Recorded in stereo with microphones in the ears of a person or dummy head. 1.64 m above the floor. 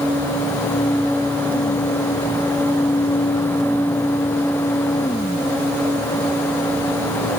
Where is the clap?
No clap in this recording.